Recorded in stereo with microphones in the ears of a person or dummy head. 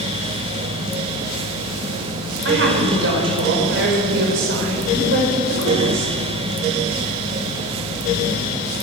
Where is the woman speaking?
70° right (ahead or behind), 6.5 m.